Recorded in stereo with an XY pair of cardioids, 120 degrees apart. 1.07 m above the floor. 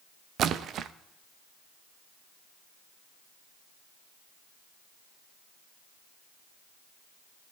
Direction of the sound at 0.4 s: 60° right.